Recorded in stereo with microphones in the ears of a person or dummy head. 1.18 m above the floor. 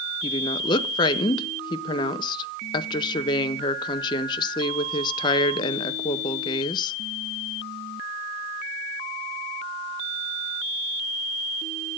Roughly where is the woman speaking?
Left.